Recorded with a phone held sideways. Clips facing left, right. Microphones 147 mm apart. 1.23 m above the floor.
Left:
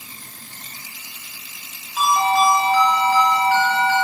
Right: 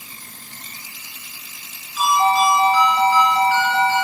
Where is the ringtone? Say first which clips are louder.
Right 1 dB; 65° left (ahead or behind), 2 m.